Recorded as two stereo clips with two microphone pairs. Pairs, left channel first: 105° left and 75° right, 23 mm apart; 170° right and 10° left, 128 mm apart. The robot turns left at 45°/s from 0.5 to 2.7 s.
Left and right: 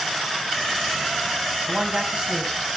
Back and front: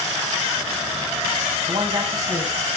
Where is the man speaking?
20° right, 2.5 m; by 2.5 s 60° right, 2.5 m.